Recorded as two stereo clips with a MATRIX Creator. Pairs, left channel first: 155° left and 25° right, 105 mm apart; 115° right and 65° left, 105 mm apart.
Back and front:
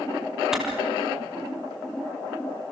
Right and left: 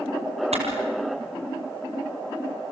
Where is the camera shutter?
65° left, 4 m.